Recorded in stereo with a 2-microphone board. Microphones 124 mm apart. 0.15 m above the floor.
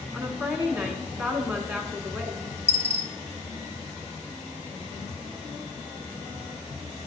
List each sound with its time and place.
0.1 s a woman speaking: 10° right (ahead or behind), 1.1 m
2.7 s a dropped coin: 50° left (ahead or behind), 0.9 m